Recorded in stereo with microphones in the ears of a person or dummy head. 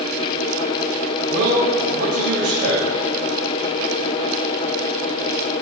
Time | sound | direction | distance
1.3 | a man speaking | 75° right (ahead or behind) | 2.5 m